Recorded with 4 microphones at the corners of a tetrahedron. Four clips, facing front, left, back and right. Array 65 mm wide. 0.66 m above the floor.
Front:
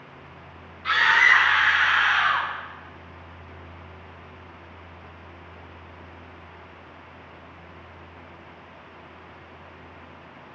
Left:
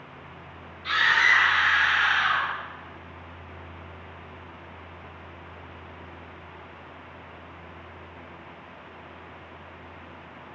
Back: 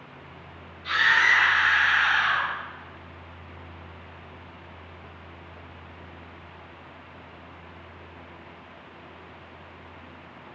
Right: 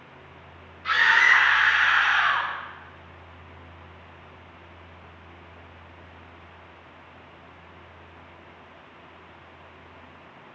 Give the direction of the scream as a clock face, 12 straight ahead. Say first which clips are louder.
Right 2 dB, front 2 dB; 1 o'clock.